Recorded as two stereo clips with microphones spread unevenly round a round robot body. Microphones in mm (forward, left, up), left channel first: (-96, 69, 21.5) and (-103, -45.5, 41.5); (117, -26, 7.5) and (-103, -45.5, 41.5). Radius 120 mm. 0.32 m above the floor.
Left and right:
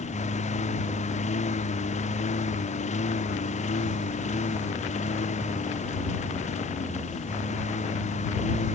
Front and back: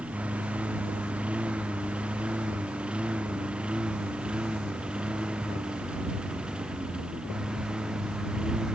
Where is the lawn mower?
100° left.